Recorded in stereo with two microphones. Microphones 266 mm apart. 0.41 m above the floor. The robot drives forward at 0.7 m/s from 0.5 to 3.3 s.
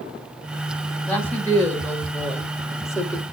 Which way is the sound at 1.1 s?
5° left (ahead or behind).